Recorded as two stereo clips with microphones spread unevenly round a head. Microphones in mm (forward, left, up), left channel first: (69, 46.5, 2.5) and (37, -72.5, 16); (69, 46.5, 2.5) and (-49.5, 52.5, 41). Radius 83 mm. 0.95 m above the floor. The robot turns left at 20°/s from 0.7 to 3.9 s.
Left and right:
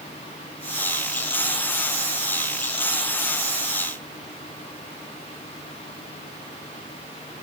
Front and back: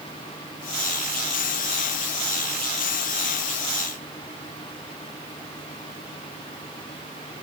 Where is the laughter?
I don't hear laughter.